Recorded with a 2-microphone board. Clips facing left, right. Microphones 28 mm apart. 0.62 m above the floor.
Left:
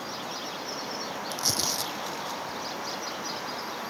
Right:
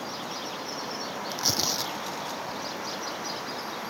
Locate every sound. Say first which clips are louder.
1.3 s tearing paper: right 1 dB; 15° right (ahead or behind)